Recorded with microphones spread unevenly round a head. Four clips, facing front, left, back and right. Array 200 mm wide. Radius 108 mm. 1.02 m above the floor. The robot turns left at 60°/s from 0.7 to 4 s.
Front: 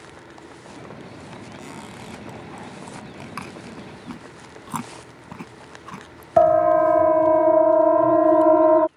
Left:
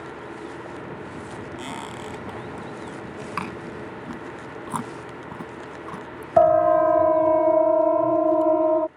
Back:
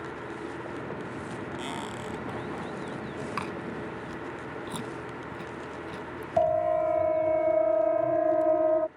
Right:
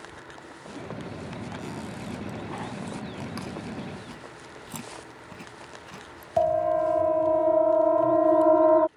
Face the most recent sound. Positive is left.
turn(degrees=0)